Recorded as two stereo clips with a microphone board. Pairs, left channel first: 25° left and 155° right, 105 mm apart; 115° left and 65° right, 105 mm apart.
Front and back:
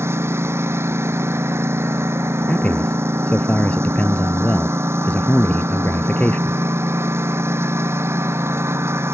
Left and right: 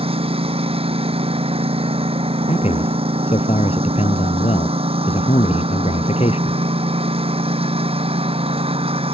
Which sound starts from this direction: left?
A man speaking, at 2.5 s.